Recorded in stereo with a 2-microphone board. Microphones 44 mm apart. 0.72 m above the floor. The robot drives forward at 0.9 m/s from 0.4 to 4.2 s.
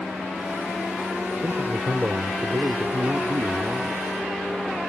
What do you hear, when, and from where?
1.4 s a man speaking: 40° right (ahead or behind); by 4.0 s 65° right (ahead or behind)